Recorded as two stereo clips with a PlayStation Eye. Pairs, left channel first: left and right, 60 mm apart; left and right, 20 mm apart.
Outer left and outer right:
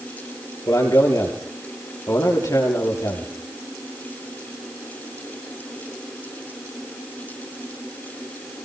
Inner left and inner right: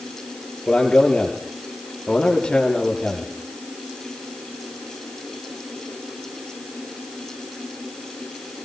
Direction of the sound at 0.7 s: 70° left (ahead or behind).